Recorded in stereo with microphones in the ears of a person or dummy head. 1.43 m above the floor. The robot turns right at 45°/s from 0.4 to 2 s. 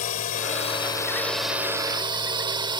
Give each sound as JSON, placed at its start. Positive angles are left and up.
{"t": 0.0, "sound": "a drone", "side_deg": 40}